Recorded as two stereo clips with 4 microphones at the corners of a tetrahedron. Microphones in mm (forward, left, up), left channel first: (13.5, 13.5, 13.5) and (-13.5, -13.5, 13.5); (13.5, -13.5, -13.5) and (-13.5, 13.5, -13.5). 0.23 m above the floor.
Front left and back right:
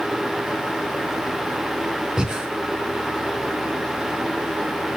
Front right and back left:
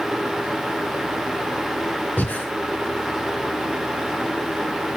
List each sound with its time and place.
2.2 s breathing: 65° right, 3.5 m